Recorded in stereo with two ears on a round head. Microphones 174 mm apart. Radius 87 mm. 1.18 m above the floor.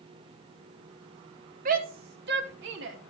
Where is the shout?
45° right (ahead or behind), 1.3 m; by 3.0 s 65° right (ahead or behind), 2.5 m.